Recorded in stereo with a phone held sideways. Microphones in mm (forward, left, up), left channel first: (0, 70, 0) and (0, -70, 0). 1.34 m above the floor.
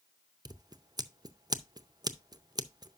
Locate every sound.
0.5 s scissors: 30° right (ahead or behind), 0.6 m